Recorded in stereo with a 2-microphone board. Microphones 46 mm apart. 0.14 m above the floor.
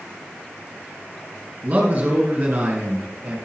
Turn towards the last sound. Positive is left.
turn(degrees=-35)  # may be behind; listen again after turning